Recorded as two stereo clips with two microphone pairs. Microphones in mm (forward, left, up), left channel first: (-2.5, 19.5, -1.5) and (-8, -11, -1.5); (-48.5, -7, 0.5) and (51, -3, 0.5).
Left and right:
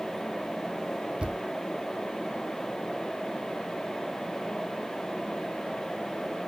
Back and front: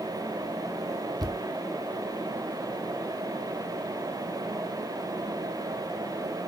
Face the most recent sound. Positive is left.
turn(degrees=-45)